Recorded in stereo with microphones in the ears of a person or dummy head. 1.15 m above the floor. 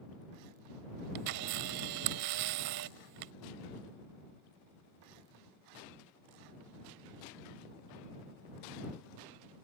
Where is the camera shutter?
50° right (ahead or behind).